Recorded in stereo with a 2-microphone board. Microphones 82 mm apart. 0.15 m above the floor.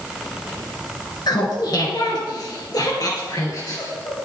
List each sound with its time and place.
1.3 s laughter: 55° left (ahead or behind), 2.5 m; by 4.2 s 45° left (ahead or behind), 3.5 m